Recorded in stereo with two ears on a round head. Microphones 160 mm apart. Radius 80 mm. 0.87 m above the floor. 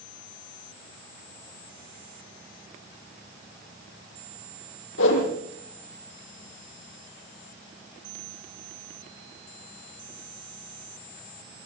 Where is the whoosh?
80° left, 7 m.